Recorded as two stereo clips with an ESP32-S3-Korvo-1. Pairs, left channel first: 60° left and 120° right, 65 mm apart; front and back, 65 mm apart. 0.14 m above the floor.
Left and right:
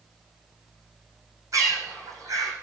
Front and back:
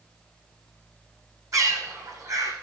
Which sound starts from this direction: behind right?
A bird, at 1.5 s.